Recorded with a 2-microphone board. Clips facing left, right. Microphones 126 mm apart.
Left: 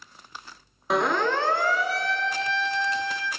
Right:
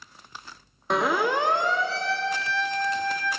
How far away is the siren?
About 2 m.